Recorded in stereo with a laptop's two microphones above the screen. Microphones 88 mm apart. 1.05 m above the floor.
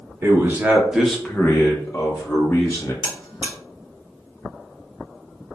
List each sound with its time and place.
0.2 s a man speaking: 25° right (ahead or behind), 1.1 m; by 2.9 s 35° left (ahead or behind), 1.8 m
3.0 s a buzzer: 60° left (ahead or behind), 1.8 m